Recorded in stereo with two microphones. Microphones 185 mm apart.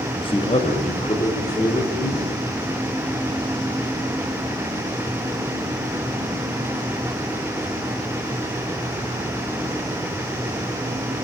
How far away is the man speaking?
About 0.5 m.